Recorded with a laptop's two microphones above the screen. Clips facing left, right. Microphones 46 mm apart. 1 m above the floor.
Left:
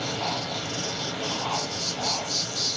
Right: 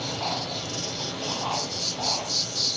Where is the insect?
35° left (ahead or behind), 0.9 m.